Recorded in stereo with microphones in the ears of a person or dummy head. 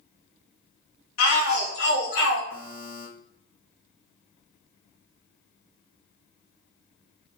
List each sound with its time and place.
1.2 s a shout: 70° left (ahead or behind), 0.5 m; by 2.4 s 75° left (ahead or behind), 1.4 m
2.5 s a buzzer: 65° left (ahead or behind), 1.5 m